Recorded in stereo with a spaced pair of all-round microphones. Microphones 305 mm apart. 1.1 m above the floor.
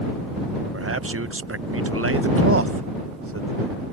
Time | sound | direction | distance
0.7 | a man speaking | 45° right (ahead or behind) | ?